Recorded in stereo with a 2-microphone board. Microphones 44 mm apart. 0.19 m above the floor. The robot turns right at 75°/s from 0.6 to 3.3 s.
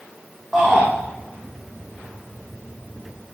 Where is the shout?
5° right (ahead or behind), 7.5 m; by 0.9 s 25° right (ahead or behind), 7.5 m.